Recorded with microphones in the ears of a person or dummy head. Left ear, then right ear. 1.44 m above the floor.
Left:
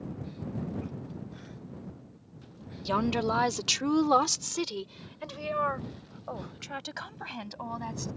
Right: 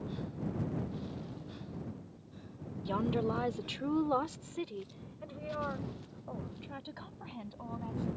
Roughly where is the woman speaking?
Left.